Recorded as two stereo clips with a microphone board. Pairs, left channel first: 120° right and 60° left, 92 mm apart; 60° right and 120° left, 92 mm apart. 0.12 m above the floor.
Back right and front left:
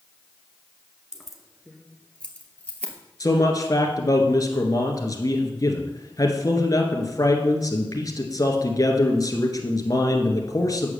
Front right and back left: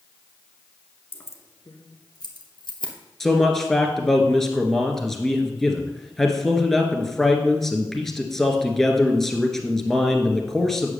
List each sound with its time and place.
1.1 s keys jangling: 15° right, 1.2 m; by 2.9 s 50° right, 2.0 m
3.2 s a man speaking: 145° right, 1.8 m